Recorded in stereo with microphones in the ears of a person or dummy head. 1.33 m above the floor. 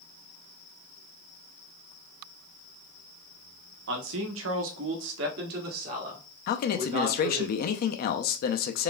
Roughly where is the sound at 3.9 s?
Right.